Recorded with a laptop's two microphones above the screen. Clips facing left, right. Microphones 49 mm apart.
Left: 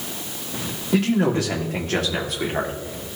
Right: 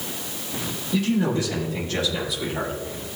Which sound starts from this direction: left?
A man speaking, at 0.9 s.